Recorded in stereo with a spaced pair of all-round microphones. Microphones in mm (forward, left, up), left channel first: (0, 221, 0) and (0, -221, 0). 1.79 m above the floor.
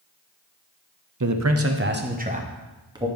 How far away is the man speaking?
About 0.7 m.